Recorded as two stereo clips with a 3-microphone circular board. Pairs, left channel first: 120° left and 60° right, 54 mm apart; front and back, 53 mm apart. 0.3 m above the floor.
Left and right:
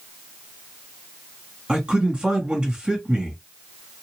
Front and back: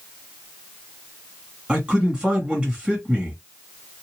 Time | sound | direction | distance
1.7 | a man speaking | 120° right | 1.8 m